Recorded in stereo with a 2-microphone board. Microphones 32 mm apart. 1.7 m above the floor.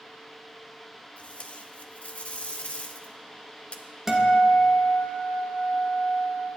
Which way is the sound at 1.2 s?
40° left (ahead or behind).